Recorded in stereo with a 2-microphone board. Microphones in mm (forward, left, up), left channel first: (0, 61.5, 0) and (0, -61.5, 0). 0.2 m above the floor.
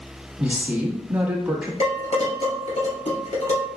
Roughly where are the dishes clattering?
Left.